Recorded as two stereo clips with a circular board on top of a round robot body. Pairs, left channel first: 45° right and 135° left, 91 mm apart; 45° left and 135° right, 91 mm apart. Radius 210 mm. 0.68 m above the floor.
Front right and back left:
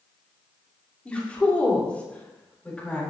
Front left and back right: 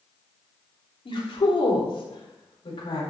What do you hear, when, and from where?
1.1 s a woman speaking: 30° left, 3.5 m